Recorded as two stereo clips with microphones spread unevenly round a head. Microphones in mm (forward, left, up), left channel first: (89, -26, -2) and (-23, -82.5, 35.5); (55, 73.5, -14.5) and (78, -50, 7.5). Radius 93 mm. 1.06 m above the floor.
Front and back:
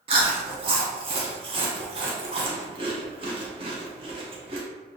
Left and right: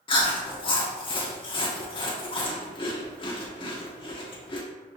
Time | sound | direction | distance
0.1 | chewing | 145° left | 0.6 m